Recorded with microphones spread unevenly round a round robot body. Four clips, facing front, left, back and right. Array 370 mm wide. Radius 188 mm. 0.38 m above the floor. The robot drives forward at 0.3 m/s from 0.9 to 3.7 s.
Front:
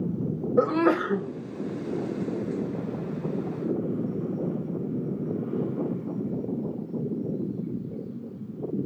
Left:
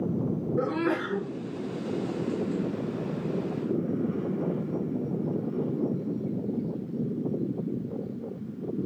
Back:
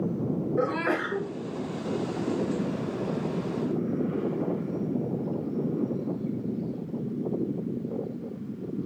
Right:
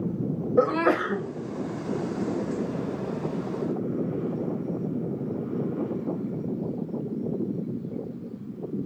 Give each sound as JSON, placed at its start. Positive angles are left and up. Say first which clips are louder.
{"t": 0.6, "sound": "a sneeze", "louder": "right 7 dB, front 8 dB", "azimuth_deg": -70, "distance_m": 2.5}